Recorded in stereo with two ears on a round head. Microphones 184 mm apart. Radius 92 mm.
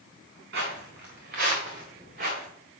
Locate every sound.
0.5 s footsteps: 55° right (ahead or behind), 3 m; by 2.5 s 35° right (ahead or behind), 3.5 m